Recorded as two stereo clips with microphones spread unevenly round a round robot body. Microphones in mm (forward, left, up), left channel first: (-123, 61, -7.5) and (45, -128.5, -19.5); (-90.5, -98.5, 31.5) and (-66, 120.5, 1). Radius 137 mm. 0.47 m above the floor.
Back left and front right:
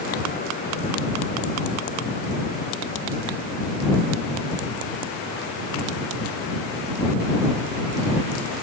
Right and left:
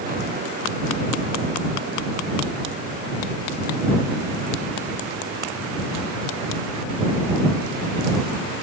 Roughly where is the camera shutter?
I don't hear a camera shutter.